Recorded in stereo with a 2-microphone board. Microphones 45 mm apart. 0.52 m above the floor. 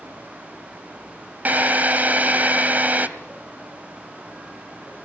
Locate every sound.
1.4 s a drill: 40° right (ahead or behind), 1.7 m